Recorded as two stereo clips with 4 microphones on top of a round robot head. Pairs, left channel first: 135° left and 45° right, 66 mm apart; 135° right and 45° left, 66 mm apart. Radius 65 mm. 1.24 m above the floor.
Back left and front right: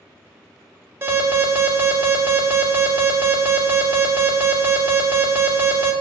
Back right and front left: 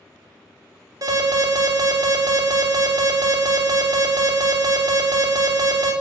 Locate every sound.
1.0 s an alarm: 15° left, 3.5 m